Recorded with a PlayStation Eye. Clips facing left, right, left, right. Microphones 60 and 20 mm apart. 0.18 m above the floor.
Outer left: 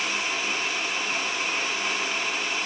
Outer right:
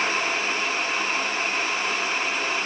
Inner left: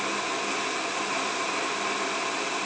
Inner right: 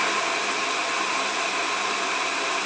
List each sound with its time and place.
Only background noise.